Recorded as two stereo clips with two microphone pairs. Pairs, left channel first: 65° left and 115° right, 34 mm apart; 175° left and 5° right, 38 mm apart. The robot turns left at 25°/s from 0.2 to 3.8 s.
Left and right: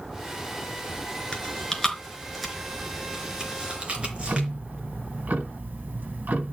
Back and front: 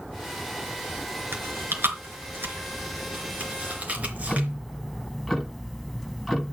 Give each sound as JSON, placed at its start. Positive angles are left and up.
{"t": 1.3, "sound": "chewing", "azimuth_deg": 5, "distance_m": 3.5}
{"t": 4.0, "sound": "ticking", "azimuth_deg": -95, "distance_m": 1.8}